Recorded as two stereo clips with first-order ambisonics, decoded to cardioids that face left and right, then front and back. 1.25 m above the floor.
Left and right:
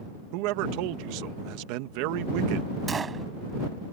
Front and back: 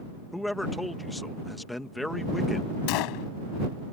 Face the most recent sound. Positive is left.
turn(degrees=-15)